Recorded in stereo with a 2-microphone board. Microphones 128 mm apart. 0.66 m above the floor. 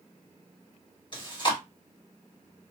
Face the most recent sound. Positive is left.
turn(degrees=40)  # may be behind; listen again after turning